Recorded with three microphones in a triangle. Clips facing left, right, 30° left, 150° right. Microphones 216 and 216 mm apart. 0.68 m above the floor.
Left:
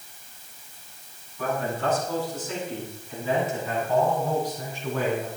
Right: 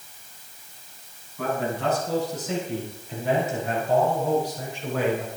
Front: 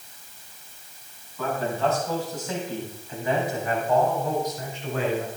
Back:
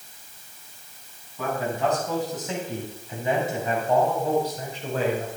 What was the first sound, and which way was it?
A man speaking, 75° right.